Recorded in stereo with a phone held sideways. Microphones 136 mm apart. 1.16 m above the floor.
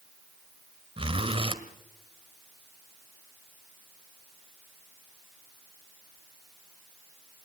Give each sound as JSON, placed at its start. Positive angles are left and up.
{"t": 1.0, "sound": "a zipper", "side_deg": -40, "distance_m": 1.4}